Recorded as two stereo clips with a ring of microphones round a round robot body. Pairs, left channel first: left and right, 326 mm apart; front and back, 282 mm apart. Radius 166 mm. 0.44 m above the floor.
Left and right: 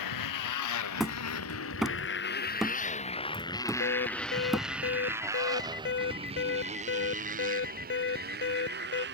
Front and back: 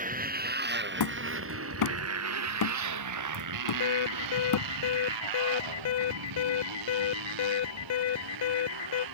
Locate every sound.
0.0 s a motorcycle: 120° left; by 9.2 s 150° right
1.0 s hammering: straight ahead
3.8 s an alarm: 30° left